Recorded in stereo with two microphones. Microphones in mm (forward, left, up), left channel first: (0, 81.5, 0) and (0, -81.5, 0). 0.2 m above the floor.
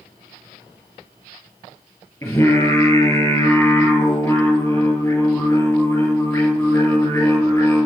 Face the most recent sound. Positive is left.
turn(degrees=15)  # may be behind; listen again after turning